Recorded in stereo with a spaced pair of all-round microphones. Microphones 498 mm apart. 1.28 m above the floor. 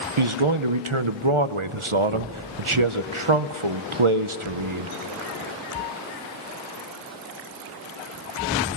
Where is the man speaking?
85° right, 0.7 m.